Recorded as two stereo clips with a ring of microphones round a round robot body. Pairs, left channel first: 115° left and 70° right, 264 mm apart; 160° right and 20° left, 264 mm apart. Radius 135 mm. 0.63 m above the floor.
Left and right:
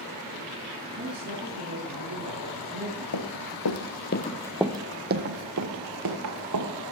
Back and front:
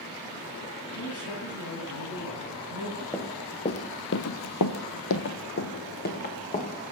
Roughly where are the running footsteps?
Behind left.